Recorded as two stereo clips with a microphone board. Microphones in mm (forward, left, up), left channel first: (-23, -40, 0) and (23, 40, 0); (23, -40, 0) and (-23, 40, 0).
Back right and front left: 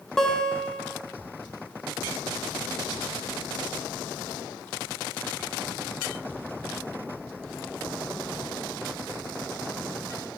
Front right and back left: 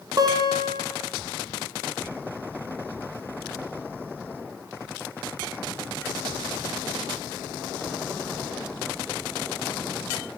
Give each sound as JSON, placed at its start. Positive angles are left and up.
{"t": 0.2, "sound": "a guitar", "azimuth_deg": 155, "distance_m": 0.9}